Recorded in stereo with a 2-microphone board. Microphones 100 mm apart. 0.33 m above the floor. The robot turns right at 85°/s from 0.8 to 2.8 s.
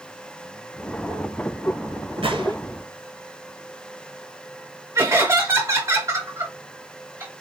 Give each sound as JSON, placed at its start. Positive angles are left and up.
{"t": 2.2, "sound": "a gunshot", "side_deg": -75, "distance_m": 0.7}
{"t": 5.0, "sound": "laughter", "side_deg": -35, "distance_m": 2.5}